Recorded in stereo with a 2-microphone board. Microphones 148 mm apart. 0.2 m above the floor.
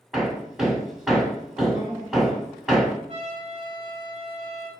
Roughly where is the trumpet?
Right.